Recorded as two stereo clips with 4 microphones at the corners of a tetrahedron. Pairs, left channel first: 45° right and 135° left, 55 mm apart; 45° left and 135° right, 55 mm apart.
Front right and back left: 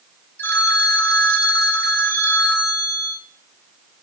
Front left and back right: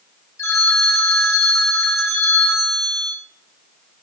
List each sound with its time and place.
0.4 s a phone ringing: 10° left, 3 m